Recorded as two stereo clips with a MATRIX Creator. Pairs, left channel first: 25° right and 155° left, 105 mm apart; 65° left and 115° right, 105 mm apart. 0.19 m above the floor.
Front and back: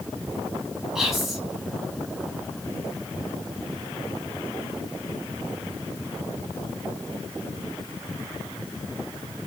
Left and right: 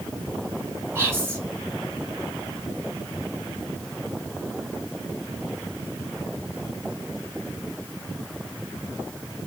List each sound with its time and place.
0.9 s whispering: 120° right, 1.4 m